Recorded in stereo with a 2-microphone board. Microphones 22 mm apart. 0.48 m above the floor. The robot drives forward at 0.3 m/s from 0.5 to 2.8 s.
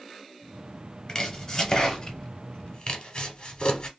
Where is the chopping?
30° left (ahead or behind), 1.0 m; by 3.9 s 50° left (ahead or behind), 0.7 m.